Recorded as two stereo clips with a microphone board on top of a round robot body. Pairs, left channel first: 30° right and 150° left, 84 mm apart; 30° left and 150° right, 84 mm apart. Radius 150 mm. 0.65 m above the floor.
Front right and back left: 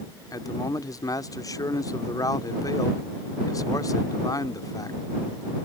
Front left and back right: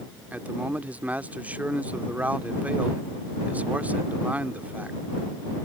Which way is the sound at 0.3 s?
75° right.